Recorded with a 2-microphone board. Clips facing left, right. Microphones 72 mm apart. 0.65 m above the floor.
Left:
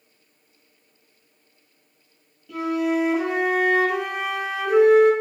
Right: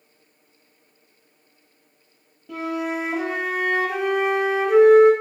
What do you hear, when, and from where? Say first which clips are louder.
2.5 s a flute: left 3 dB; 40° right (ahead or behind), 1.0 m